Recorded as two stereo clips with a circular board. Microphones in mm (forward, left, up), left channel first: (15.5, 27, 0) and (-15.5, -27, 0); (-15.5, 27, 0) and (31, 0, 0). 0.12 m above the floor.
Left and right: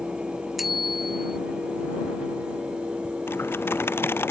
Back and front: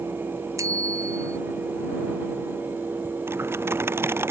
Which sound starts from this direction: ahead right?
A bicycle bell, at 0.6 s.